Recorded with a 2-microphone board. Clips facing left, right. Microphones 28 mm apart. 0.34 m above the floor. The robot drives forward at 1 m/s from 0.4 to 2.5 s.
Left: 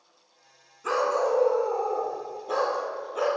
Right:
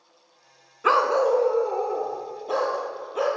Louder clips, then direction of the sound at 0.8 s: Right 5 dB; 55° right (ahead or behind).